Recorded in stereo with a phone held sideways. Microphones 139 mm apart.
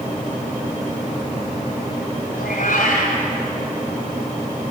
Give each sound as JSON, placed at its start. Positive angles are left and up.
{"t": 2.3, "sound": "a cat meowing", "side_deg": 90, "distance_m": 2.0}